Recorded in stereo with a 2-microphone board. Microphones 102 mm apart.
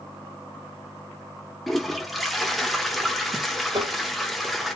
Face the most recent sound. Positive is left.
turn(degrees=-40)  # may be behind; listen again after turning